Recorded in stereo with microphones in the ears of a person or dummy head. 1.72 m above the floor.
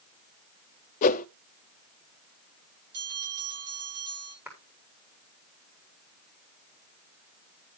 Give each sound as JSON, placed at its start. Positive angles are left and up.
{"t": 1.0, "sound": "a whoosh", "side_deg": 40, "distance_m": 0.6}
{"t": 2.9, "sound": "a bell", "side_deg": -65, "distance_m": 7.0}
{"t": 4.5, "sound": "a clap", "side_deg": -5, "distance_m": 4.5}